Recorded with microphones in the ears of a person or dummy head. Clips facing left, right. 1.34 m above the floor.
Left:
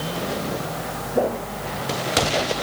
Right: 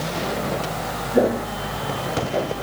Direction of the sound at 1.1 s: 30° right (ahead or behind).